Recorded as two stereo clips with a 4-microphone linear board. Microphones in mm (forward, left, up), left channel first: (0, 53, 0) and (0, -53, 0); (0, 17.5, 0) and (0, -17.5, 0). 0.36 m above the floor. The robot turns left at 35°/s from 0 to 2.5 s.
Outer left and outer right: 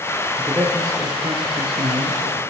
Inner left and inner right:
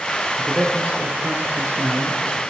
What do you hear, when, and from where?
0.4 s a man speaking: 20° right (ahead or behind), 7.5 m; by 2.4 s 80° right, 7.5 m